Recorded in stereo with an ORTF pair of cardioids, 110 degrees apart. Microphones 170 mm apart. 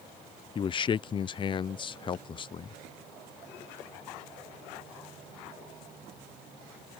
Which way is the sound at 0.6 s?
30° left.